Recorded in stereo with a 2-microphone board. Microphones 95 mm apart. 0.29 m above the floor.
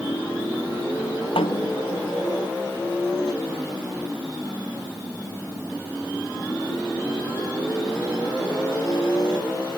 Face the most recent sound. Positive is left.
turn(degrees=85)